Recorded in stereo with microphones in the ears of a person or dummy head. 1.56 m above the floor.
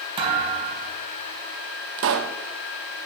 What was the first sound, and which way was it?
A thud, 25° right (ahead or behind).